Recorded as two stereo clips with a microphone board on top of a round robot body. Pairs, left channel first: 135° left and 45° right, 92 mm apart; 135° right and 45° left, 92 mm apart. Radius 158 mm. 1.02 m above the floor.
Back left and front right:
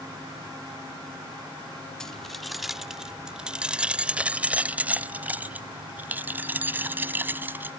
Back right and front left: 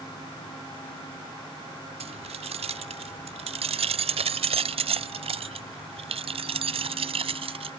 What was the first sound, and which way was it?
Keys jangling, 50° left.